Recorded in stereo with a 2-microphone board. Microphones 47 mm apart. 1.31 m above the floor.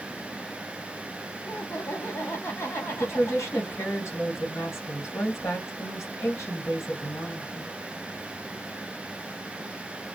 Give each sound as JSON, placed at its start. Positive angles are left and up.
{"t": 1.4, "sound": "laughter", "side_deg": 65, "distance_m": 0.8}
{"t": 3.0, "sound": "a woman speaking", "side_deg": 75, "distance_m": 1.3}